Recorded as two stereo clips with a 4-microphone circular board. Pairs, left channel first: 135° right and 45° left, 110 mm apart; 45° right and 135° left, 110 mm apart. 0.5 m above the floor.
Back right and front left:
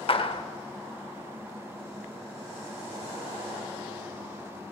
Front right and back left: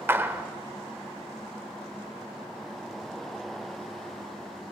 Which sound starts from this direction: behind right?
A clap, at 0.1 s.